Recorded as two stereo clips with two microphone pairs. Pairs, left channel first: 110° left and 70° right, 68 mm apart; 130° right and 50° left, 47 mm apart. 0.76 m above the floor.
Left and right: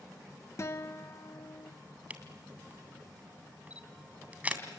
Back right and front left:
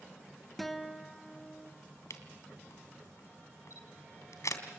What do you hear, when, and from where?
0.6 s a guitar: 140° left, 1.3 m
2.1 s a camera shutter: 135° right, 2.5 m